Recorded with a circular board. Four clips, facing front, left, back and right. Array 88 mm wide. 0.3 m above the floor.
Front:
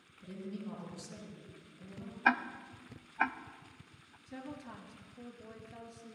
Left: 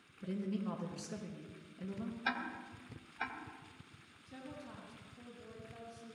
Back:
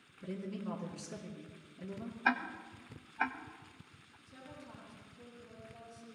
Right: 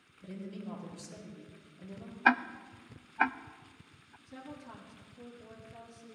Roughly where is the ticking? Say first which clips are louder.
Right 14 dB, front 3 dB; right.